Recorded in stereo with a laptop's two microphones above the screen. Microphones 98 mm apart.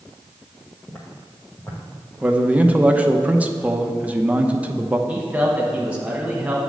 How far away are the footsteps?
About 1.7 m.